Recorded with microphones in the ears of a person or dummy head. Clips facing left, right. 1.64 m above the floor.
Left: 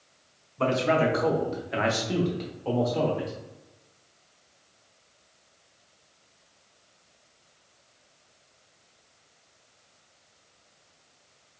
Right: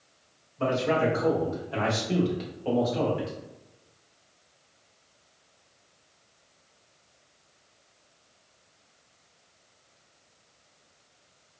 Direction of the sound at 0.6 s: 65° left (ahead or behind).